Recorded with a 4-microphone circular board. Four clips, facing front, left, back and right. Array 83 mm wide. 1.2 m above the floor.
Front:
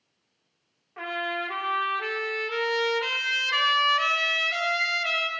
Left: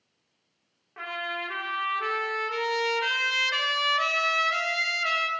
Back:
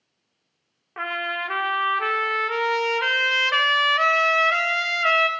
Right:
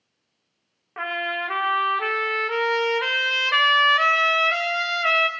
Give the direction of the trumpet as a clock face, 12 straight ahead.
5 o'clock.